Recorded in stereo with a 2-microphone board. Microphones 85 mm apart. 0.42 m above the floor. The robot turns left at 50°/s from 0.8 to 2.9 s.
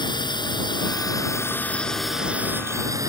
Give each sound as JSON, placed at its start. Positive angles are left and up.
{"t": 0.0, "sound": "a drone", "azimuth_deg": 65}